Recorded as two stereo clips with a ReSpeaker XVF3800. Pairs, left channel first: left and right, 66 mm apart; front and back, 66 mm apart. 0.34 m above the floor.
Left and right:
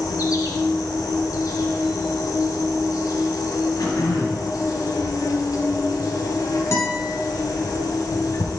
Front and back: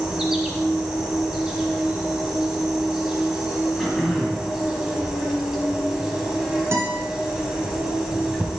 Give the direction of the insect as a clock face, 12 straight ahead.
9 o'clock.